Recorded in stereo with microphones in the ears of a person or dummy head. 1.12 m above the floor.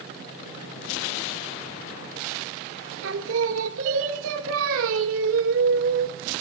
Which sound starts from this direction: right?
Singing, at 3.0 s.